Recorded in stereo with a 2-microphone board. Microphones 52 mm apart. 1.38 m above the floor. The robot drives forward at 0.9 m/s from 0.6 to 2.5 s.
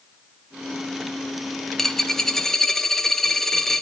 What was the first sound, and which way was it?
A dropped coin, 5° left (ahead or behind).